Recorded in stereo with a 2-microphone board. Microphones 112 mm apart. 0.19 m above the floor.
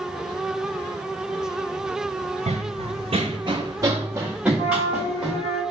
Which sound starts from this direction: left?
A flute, at 4.6 s.